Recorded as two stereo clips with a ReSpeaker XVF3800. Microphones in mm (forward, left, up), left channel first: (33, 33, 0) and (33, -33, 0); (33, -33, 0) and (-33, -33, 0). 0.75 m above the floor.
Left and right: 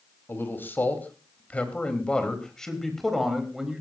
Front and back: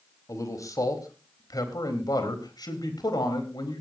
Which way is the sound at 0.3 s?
35° left.